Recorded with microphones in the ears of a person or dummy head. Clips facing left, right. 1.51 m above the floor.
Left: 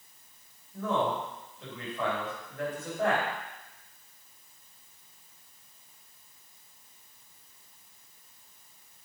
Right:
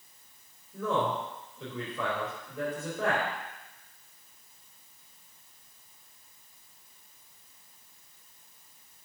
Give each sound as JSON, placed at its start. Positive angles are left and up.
{"t": 0.7, "sound": "a man speaking", "side_deg": -60, "distance_m": 4.5}